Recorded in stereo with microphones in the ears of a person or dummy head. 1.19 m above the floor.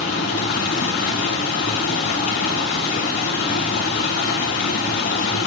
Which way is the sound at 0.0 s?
60° left (ahead or behind).